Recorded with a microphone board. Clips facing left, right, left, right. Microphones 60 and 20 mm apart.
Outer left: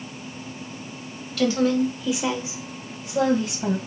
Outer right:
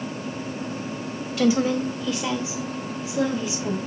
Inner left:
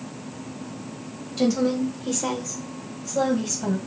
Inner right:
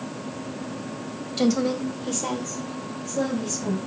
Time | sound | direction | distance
1.4 | a woman speaking | 20° right (ahead or behind) | 1.6 m